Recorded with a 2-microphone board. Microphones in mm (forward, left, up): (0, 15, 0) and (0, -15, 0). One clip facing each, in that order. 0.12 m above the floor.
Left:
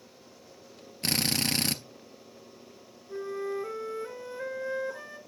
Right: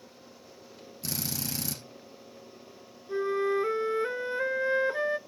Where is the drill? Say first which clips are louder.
Left 7 dB; 60° left (ahead or behind), 1.0 m.